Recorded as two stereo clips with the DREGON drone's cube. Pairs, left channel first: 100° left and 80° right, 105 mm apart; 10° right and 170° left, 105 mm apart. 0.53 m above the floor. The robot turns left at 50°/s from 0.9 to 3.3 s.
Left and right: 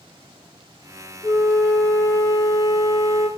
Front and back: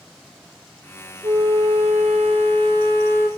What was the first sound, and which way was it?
A flute, 145° right.